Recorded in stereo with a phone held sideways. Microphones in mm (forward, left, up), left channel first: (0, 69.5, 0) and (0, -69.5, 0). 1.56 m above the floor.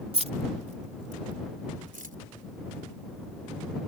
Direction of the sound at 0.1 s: 50° right (ahead or behind).